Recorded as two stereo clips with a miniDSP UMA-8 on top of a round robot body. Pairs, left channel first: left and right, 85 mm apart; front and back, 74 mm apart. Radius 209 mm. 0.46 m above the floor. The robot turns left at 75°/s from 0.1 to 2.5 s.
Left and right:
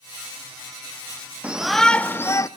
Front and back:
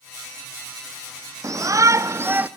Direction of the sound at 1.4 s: 160° right.